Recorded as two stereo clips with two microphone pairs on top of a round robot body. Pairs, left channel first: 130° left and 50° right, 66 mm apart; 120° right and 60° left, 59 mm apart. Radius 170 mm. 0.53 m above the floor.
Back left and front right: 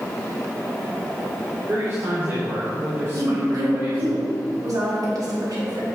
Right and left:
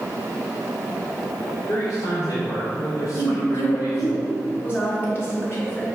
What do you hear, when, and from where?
1.7 s a man speaking: 100° right, 2 m
3.1 s a woman speaking: 70° right, 2.5 m